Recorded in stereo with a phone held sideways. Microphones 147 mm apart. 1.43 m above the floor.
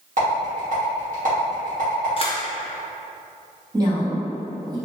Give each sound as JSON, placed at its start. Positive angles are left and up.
{"t": 0.2, "sound": "a rattle", "side_deg": -60, "distance_m": 1.3}
{"t": 2.2, "sound": "a camera shutter", "side_deg": 35, "distance_m": 0.5}
{"t": 3.7, "sound": "a woman speaking", "side_deg": -25, "distance_m": 1.2}